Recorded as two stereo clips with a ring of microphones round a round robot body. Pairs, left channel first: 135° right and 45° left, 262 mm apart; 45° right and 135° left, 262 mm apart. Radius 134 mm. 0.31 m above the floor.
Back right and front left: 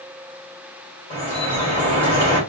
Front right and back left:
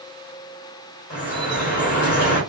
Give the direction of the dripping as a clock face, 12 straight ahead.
2 o'clock.